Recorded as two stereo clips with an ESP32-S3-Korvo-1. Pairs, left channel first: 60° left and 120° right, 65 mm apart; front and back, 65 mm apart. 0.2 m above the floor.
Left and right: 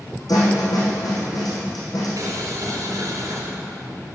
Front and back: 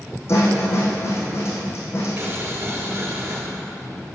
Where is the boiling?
140° right, 3 m.